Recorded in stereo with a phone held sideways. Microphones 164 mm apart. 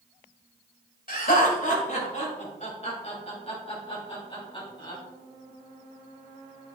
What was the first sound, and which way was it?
Laughter, 60° left (ahead or behind).